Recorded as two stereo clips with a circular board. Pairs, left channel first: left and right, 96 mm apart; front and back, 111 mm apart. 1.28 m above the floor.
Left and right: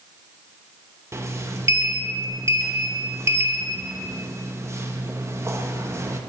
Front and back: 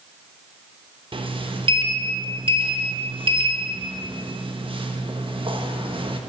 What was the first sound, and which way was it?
A sliding door, 145° right.